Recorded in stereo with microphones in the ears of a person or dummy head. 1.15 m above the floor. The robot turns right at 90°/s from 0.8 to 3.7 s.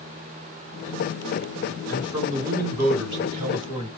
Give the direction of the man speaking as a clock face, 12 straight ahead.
6 o'clock.